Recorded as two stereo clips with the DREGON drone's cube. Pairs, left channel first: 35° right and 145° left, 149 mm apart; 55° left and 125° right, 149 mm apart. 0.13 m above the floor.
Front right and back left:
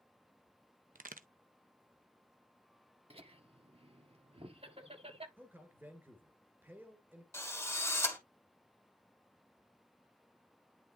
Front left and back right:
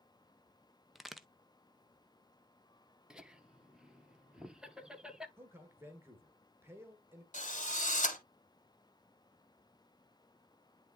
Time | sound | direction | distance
0.9 | a crack | 145° left | 0.6 m
3.1 | laughter | 150° left | 1.5 m
5.4 | a man speaking | 165° right | 1.7 m
7.3 | a drill | 35° left | 2.5 m